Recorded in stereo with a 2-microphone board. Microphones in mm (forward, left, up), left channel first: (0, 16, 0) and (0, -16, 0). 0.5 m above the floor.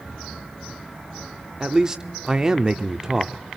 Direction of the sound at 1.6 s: 20° right (ahead or behind).